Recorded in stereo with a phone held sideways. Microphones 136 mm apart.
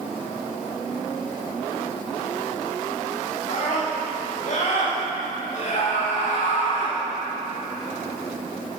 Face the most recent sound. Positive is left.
turn(degrees=70)  # may be behind; listen again after turning